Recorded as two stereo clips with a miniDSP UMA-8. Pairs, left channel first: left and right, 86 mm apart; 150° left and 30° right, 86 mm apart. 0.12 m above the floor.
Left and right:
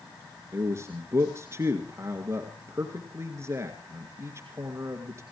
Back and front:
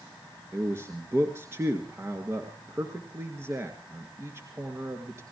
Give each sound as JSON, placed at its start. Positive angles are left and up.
{"t": 0.5, "sound": "a man speaking", "azimuth_deg": -65, "distance_m": 2.0}